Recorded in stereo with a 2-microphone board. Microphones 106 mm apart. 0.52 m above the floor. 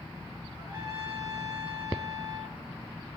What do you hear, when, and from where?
0.6 s a trumpet: 35° right (ahead or behind), 3.5 m